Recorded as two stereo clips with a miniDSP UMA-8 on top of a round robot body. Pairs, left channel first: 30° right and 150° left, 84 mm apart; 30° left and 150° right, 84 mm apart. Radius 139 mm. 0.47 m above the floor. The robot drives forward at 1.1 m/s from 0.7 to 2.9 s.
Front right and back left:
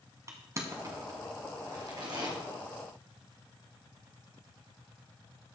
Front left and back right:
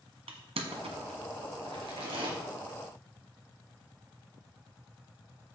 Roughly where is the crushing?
Behind right.